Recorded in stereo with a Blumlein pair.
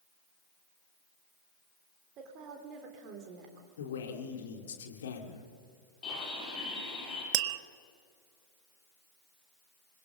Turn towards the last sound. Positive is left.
turn(degrees=-45)